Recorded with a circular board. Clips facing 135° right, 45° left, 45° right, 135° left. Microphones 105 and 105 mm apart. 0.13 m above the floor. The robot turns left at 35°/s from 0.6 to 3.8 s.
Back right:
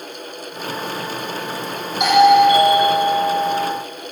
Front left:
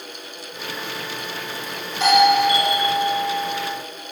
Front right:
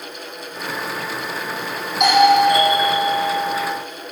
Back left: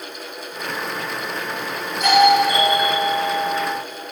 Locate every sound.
2.0 s a doorbell: 60° right, 6 m; by 3.7 s 120° right, 6 m